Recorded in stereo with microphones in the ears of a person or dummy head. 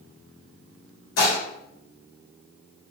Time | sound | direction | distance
1.2 | dishes clattering | 60° left (ahead or behind) | 1.5 m